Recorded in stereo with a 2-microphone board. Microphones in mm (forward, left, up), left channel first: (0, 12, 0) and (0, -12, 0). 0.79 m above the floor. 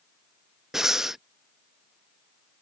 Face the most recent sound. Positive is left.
turn(degrees=-15)  # may be behind; listen again after turning